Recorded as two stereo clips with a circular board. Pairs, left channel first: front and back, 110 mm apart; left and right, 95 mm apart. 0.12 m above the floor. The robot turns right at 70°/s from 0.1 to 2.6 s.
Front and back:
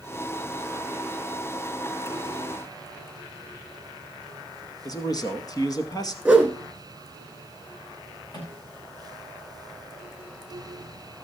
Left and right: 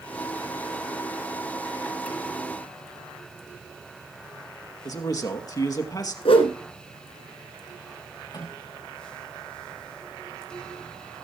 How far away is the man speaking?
About 2 m.